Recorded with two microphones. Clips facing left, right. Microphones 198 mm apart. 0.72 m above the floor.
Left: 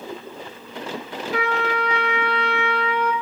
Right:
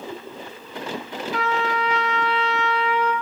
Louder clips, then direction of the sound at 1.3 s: Left 1 dB; 60° left (ahead or behind).